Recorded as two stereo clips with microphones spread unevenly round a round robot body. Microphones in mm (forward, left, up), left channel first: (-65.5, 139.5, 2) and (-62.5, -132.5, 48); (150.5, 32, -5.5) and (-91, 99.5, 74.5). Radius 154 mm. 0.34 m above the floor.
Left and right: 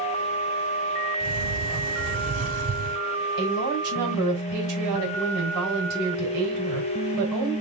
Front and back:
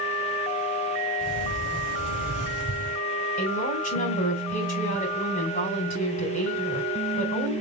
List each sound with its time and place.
1.2 s a sliding door: 125° right, 2 m
3.4 s a woman speaking: 60° right, 3 m